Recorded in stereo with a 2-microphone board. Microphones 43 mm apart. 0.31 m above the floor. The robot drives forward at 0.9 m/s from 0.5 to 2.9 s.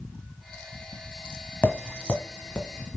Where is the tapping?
40° left (ahead or behind), 1.3 m; by 3.0 s 20° left (ahead or behind), 2 m.